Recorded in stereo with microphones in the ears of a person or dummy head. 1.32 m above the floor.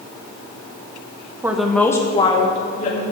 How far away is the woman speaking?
About 1.3 m.